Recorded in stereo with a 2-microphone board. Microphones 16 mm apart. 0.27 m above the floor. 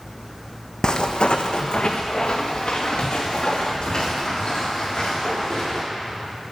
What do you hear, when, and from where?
0.8 s footsteps: 45° left (ahead or behind), 0.9 m; by 5.8 s 40° left (ahead or behind), 6 m